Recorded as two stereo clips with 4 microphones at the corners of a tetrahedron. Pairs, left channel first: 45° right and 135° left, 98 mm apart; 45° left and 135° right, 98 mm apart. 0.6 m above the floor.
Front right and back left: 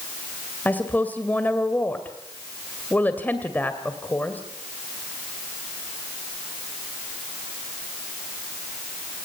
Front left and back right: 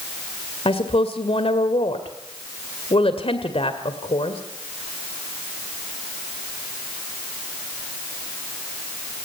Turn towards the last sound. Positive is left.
turn(degrees=25)